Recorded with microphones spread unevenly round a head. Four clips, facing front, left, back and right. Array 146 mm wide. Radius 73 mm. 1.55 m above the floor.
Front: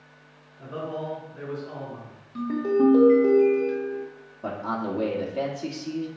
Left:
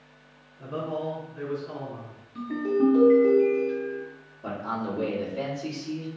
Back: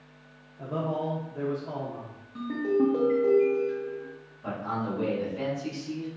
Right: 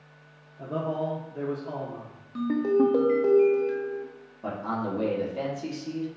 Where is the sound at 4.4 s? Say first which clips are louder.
Right 1 dB, front 2 dB; 25° right, 1.2 m.